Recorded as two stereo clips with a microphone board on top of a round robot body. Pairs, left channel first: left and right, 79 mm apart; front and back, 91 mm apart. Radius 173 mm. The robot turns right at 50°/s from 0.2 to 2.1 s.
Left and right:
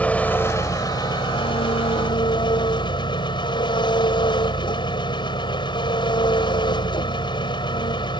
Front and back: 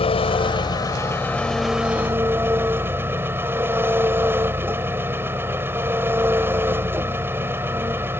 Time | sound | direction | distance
0.0 | an engine running | 20° left | ?